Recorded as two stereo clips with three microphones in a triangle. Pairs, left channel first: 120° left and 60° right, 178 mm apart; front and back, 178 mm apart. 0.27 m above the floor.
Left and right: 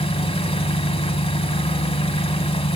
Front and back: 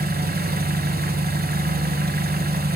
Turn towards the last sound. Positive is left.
turn(degrees=175)